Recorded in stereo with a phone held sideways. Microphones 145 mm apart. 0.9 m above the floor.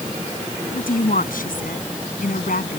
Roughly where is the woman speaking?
Left.